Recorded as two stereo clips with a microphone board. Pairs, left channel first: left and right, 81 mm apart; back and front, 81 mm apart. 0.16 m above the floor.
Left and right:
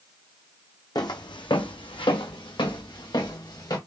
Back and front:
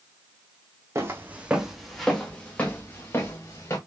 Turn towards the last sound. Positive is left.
turn(degrees=125)